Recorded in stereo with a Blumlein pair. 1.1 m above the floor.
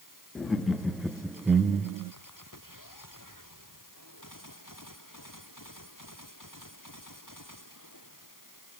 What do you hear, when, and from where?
0.3 s laughter: 15° left, 1.6 m; by 2.1 s 45° right, 0.8 m